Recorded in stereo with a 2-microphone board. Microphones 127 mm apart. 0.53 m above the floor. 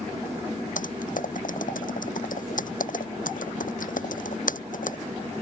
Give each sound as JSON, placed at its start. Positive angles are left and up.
{"t": 0.8, "sound": "typing on a keyboard", "side_deg": 80}